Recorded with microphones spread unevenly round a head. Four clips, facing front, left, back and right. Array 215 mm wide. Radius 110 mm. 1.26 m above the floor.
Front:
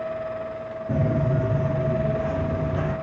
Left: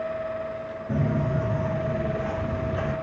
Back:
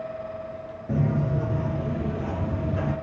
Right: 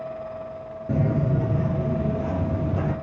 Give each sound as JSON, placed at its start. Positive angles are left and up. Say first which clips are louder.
{"t": 0.9, "sound": "footsteps", "louder": "right 2 dB, front 2 dB", "azimuth_deg": -90, "distance_m": 1.5}